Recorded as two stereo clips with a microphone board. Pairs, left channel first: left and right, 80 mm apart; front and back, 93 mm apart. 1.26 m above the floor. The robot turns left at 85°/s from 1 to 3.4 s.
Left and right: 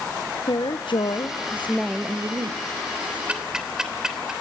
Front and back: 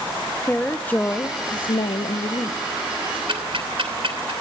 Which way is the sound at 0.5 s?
75° left.